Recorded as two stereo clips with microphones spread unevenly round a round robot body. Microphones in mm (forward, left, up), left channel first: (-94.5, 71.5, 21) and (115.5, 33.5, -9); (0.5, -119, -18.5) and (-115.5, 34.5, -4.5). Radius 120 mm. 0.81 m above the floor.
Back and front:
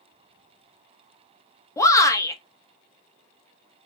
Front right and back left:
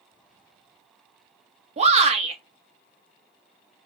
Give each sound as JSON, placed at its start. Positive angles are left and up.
{"t": 1.8, "sound": "a shout", "azimuth_deg": 90, "distance_m": 1.1}